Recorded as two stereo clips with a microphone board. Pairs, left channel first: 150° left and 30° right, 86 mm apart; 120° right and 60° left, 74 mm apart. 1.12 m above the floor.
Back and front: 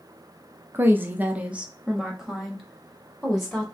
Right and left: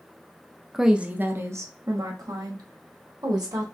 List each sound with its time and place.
0.7 s a woman speaking: 30° right, 0.6 m; by 3.6 s 60° left, 1.8 m